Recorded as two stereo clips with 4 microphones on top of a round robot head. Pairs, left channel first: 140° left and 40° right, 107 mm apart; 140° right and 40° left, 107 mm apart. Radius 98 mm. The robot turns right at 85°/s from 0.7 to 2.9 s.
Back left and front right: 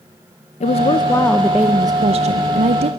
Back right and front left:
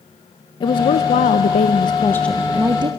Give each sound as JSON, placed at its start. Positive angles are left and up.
{"t": 0.6, "sound": "a woman speaking", "azimuth_deg": 165, "distance_m": 0.6}